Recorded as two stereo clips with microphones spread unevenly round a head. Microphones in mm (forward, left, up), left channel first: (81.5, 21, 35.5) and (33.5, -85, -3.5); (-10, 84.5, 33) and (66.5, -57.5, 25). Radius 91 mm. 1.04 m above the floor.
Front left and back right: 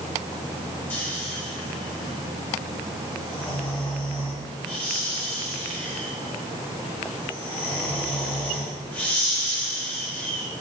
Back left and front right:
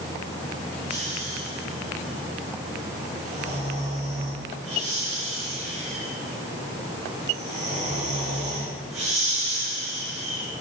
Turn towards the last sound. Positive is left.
turn(degrees=-15)